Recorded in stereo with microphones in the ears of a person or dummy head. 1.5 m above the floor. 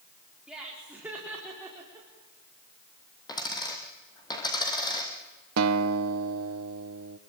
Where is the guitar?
75° right (ahead or behind), 0.9 m.